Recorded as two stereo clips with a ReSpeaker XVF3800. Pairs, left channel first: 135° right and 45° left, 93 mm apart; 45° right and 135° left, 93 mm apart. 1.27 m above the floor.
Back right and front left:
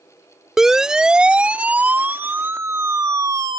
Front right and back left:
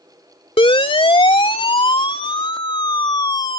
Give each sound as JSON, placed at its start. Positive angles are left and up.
{"t": 0.6, "sound": "a siren", "azimuth_deg": -40}